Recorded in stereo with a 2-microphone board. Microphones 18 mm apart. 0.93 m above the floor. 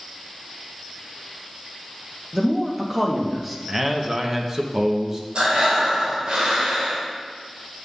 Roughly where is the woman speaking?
Centre.